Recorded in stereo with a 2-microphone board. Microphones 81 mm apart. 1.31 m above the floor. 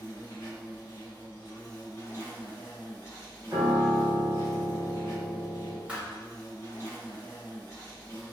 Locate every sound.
0.0 s an insect: 35° left (ahead or behind), 0.9 m
3.5 s a piano: 40° right (ahead or behind), 1.0 m
5.9 s a thud: 15° right (ahead or behind), 1.1 m